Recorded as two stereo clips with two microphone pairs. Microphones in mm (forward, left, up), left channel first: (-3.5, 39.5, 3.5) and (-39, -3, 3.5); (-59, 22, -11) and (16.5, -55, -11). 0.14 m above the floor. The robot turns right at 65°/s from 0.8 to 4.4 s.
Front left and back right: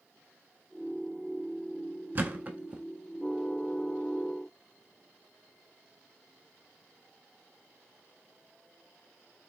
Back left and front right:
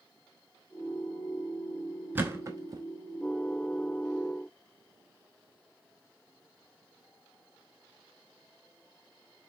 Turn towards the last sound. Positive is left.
turn(degrees=40)